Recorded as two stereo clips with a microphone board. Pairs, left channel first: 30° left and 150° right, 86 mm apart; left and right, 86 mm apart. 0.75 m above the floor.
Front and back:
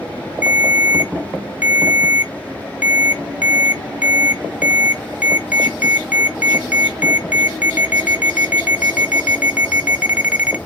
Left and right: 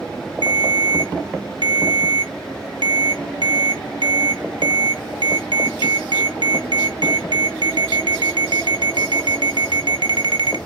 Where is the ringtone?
80° right, 0.6 m.